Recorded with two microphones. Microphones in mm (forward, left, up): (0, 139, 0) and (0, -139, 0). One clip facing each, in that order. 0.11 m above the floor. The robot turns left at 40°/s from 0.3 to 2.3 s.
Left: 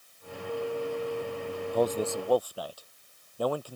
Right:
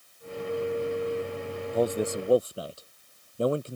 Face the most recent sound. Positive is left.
turn(degrees=-25)  # may be behind; listen again after turning